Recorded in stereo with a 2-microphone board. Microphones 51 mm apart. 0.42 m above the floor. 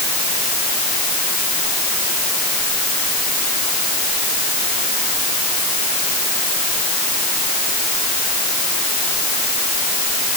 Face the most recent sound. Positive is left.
No sound to turn to.